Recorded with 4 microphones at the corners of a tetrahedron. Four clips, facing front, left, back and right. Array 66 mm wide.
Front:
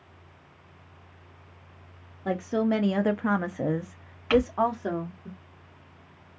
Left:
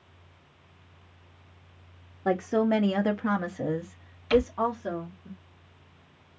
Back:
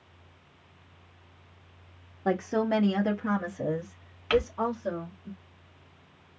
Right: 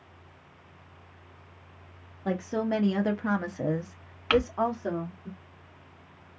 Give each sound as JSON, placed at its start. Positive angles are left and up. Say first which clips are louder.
{"t": 2.2, "sound": "a woman speaking", "louder": "left 4 dB, even", "azimuth_deg": 135, "distance_m": 0.7}
{"t": 4.3, "sound": "crumpling", "louder": "left 1 dB, front 3 dB", "azimuth_deg": -75, "distance_m": 2.5}